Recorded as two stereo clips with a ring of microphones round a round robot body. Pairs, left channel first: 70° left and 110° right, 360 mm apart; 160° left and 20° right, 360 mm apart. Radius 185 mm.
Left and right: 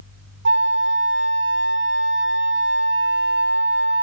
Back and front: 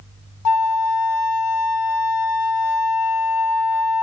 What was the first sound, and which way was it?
A flute, 175° right.